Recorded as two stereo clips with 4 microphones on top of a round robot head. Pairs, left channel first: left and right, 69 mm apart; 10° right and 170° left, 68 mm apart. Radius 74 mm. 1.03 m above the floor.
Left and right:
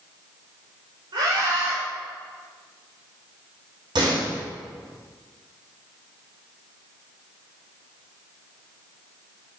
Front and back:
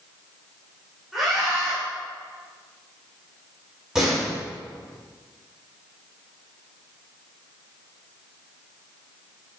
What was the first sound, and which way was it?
A scream, 105° right.